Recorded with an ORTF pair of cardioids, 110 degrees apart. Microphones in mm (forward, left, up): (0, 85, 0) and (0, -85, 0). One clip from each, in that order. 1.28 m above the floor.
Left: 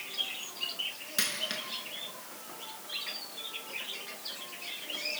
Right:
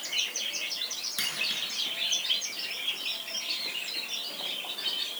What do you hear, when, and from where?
1.2 s a dropped coin: 25° left, 5 m